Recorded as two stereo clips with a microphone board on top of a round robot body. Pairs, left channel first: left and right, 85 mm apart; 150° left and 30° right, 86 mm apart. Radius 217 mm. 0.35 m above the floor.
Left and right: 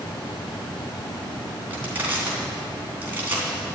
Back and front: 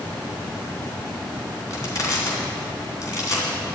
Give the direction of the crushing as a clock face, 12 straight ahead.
5 o'clock.